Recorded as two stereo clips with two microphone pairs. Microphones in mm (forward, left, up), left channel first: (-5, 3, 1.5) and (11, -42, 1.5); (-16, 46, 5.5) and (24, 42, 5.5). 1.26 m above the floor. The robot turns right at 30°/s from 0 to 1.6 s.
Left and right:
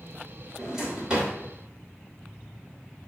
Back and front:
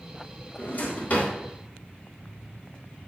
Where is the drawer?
155° right, 3 m; by 1.3 s 135° right, 3 m.